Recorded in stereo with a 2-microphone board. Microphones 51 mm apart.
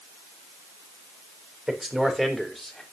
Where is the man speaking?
5° right (ahead or behind), 4 m; by 2.8 s 5° left (ahead or behind), 3 m.